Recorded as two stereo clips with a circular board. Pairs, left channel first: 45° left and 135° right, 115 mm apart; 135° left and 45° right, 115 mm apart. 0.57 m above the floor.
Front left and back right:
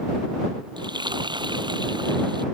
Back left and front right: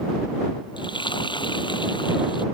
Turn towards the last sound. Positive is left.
turn(degrees=180)